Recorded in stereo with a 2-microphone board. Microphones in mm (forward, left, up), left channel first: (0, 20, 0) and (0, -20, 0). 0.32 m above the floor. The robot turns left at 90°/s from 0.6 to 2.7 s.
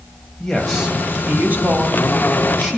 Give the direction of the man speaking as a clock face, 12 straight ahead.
12 o'clock.